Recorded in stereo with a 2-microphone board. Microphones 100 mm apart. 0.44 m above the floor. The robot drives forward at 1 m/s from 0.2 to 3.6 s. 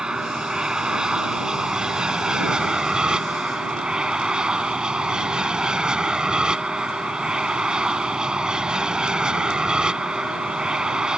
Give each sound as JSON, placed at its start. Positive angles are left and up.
{"t": 0.0, "sound": "an aircraft", "side_deg": -5}